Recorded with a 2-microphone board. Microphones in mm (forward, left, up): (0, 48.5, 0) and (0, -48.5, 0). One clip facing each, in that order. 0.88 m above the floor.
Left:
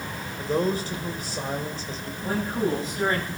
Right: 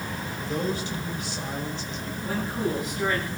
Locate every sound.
0.4 s a man speaking: 40° left (ahead or behind), 3 m
2.2 s a man speaking: 30° left (ahead or behind), 7 m